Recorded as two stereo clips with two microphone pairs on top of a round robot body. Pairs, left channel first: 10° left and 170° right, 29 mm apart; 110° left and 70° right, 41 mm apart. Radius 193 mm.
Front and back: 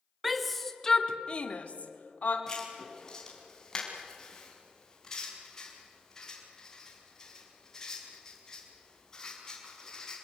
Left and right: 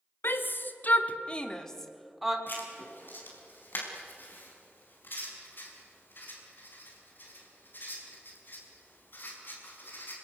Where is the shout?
105° left, 2.5 m; by 2.4 s 15° left, 3 m.